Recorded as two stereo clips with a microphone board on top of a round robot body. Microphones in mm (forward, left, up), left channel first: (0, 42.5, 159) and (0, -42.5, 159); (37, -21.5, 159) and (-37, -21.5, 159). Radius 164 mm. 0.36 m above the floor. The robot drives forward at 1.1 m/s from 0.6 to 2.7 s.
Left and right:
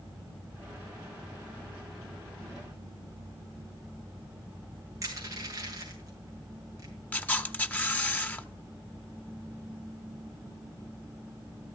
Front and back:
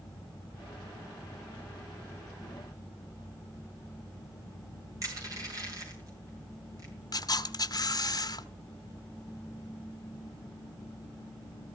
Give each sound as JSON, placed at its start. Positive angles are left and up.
{"t": 5.0, "sound": "crushing", "azimuth_deg": -140, "distance_m": 7.0}
{"t": 7.1, "sound": "a camera shutter", "azimuth_deg": 20, "distance_m": 1.4}